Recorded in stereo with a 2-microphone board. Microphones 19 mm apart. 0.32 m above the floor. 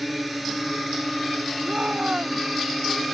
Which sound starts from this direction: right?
A shout, at 1.6 s.